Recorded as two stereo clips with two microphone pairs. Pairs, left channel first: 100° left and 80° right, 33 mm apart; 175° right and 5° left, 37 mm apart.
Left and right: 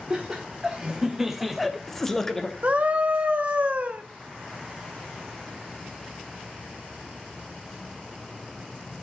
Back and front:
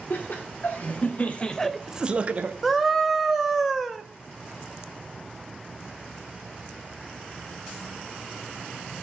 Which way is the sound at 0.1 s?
155° right.